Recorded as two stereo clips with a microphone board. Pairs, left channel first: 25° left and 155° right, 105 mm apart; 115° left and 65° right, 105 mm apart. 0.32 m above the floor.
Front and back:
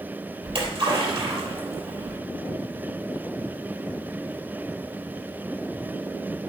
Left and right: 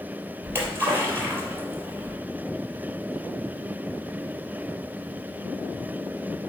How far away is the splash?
About 3 m.